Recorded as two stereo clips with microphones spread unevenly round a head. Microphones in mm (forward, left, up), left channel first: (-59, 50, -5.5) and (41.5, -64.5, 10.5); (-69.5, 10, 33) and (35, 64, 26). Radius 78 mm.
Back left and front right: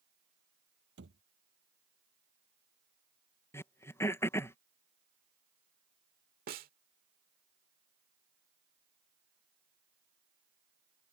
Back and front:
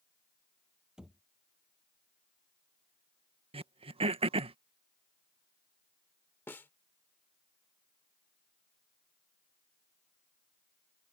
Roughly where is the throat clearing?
Ahead left.